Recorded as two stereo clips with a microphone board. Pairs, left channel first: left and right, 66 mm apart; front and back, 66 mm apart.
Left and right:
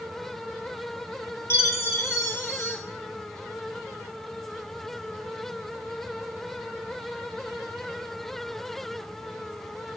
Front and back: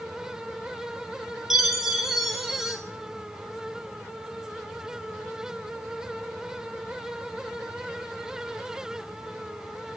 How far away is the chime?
About 1.3 m.